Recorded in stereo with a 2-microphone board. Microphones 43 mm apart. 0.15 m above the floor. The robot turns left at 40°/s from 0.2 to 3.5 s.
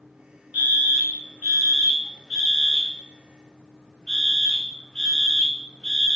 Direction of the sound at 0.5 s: 30° right (ahead or behind).